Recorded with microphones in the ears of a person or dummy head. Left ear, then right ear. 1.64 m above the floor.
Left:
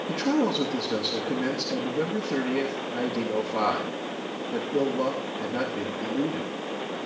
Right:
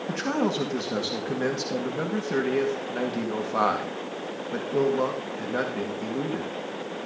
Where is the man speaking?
55° right (ahead or behind), 2.5 m.